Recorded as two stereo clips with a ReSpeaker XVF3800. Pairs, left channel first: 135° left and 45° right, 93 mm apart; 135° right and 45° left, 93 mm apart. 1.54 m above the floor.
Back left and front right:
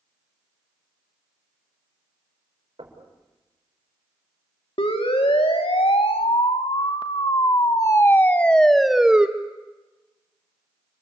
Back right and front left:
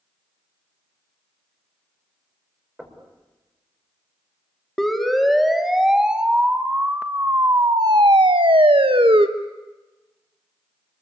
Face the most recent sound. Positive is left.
turn(degrees=35)